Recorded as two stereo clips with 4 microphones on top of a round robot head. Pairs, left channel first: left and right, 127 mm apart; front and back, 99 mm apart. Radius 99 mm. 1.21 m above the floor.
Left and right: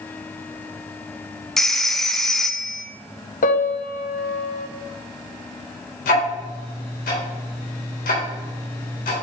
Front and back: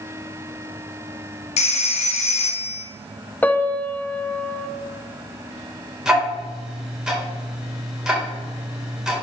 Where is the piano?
75° left, 0.9 m.